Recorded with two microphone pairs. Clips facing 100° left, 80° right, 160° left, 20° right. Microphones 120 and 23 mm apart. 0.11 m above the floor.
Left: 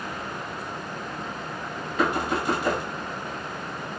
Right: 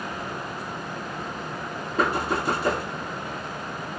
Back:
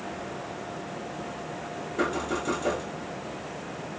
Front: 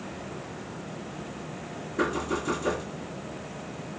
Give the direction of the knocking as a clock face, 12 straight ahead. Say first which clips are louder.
Even, even; 4 o'clock.